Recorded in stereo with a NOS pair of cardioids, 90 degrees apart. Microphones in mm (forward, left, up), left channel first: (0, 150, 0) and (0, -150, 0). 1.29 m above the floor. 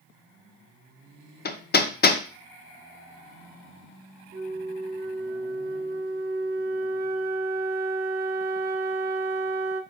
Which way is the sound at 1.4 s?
30° left.